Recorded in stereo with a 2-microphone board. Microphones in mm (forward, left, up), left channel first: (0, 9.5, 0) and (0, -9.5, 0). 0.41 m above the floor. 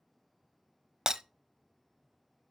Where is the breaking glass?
40° right (ahead or behind), 0.7 m.